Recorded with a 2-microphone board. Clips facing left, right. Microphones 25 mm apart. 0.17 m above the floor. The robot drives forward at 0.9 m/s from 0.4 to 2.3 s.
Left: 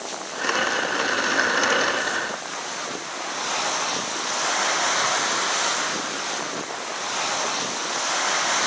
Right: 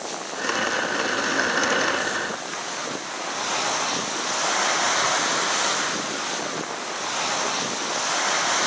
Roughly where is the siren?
I don't hear a siren.